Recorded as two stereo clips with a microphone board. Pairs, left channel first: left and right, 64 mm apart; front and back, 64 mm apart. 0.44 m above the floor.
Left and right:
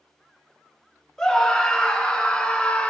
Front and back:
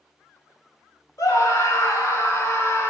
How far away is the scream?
About 3 m.